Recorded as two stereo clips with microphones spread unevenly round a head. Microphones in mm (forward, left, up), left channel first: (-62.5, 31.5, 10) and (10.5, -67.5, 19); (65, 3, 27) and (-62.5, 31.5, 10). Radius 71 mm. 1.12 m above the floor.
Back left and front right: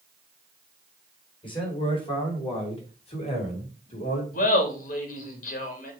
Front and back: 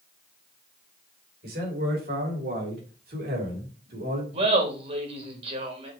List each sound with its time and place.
1.4 s a man speaking: 175° left, 4 m; by 4.2 s 155° left, 2.5 m
4.3 s laughter: 130° left, 2.5 m